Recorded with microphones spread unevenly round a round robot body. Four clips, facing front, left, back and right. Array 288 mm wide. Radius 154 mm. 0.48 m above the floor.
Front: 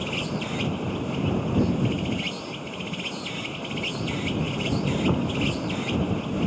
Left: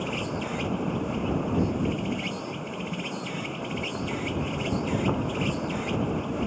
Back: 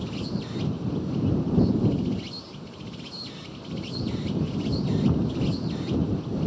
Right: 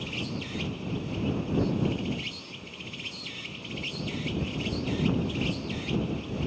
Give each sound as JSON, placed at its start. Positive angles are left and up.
{"t": 0.0, "sound": "an insect", "azimuth_deg": 40}